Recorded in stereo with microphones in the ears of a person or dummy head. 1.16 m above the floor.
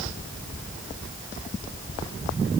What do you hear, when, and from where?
Only background noise.